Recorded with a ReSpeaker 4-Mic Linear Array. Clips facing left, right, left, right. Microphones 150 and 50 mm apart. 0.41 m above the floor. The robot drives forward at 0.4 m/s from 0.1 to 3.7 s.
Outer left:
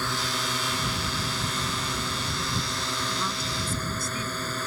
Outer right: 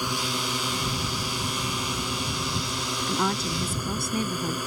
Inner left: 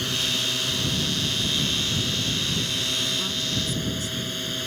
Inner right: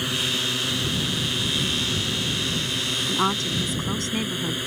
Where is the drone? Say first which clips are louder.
Outer right 1 dB, inner right 1 dB; 15° right (ahead or behind).